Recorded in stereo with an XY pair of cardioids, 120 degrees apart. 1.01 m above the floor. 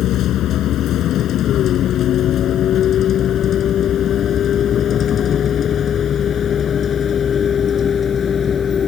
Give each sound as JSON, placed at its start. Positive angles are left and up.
{"t": 0.0, "sound": "a vehicle", "azimuth_deg": 65}